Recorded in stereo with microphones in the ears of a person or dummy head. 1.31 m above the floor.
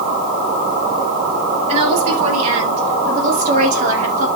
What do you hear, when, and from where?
1.7 s a woman speaking: 40° right (ahead or behind), 9 m; by 4.3 s 45° right (ahead or behind), 7.5 m